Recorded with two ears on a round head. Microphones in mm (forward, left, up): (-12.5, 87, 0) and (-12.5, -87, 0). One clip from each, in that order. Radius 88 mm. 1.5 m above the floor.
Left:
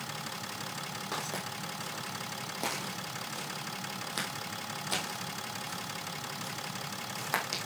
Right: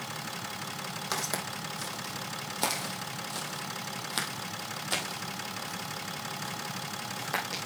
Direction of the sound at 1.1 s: 55° right (ahead or behind).